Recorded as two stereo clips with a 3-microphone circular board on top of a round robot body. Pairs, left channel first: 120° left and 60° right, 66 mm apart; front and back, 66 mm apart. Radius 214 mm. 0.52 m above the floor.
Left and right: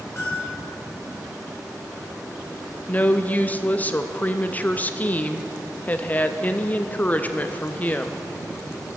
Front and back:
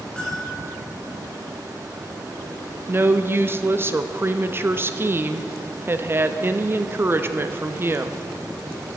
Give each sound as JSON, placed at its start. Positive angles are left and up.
{"t": 0.2, "sound": "a bell", "azimuth_deg": 75, "distance_m": 3.5}
{"t": 2.9, "sound": "a woman speaking", "azimuth_deg": 165, "distance_m": 0.9}